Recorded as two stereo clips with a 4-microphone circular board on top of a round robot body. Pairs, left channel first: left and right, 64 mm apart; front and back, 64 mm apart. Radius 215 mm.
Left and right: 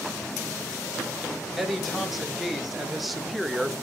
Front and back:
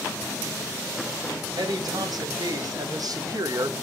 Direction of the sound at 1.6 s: Straight behind.